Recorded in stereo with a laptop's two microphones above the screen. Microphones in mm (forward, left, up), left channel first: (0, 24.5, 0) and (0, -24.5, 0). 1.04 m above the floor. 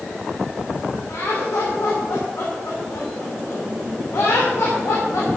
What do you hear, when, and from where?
1.1 s laughter: 75° left (ahead or behind), 3 m